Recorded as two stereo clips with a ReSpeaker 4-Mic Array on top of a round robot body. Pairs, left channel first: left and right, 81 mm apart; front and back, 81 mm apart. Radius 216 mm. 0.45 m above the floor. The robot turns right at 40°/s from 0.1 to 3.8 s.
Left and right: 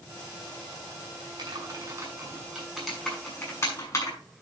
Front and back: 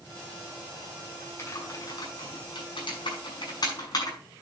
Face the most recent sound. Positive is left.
turn(degrees=40)